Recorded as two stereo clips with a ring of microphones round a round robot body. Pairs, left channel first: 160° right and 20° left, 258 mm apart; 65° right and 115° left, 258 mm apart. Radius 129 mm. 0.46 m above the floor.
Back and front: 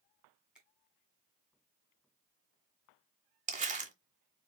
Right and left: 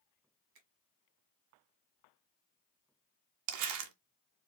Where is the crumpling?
85° left, 0.8 m.